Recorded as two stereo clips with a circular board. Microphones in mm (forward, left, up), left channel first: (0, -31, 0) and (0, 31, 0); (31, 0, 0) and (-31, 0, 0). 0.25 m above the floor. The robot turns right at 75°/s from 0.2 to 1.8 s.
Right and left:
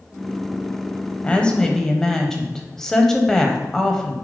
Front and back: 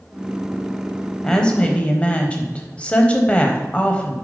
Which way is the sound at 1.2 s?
65° right.